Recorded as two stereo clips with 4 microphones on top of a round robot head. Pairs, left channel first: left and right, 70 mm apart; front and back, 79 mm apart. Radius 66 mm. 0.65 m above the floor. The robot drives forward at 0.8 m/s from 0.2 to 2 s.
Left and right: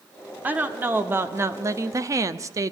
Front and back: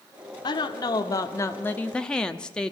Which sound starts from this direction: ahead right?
A woman speaking, at 0.4 s.